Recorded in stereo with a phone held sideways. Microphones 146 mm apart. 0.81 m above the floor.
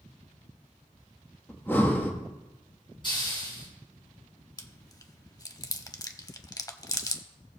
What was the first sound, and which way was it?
Breathing, 15° left (ahead or behind).